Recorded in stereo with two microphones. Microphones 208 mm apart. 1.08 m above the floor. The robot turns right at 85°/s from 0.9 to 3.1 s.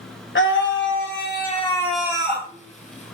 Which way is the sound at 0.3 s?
90° left.